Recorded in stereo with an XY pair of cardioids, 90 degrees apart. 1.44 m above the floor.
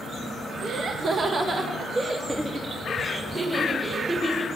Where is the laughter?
70° right, 1.9 m; by 4.5 s 20° right, 6 m.